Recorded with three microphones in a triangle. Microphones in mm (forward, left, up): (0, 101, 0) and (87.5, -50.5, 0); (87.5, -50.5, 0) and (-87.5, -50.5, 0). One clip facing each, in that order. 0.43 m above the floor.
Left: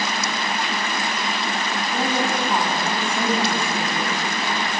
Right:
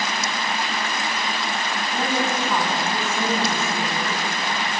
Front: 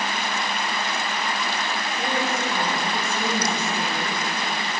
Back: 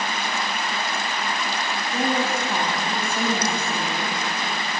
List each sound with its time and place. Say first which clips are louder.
1.9 s a woman speaking: left 1 dB, back 4 dB; 165° right, 3 m